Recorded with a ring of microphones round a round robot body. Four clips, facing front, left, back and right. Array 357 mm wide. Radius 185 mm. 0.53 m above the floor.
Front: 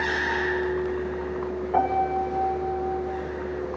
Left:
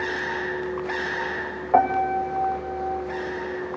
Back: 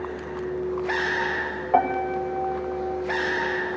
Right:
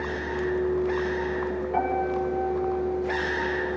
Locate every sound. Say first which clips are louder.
1.7 s a piano: left 8 dB, back 1 dB; 120° left, 3 m